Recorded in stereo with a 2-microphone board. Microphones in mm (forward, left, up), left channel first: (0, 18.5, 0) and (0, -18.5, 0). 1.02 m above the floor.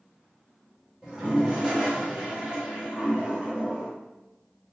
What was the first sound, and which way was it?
A toilet flushing, 20° right (ahead or behind).